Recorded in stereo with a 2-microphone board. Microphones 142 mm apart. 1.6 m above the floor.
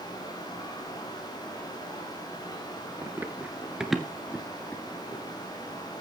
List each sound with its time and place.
3.0 s running footsteps: 20° right (ahead or behind), 1.6 m; by 5.2 s 20° left (ahead or behind), 1.8 m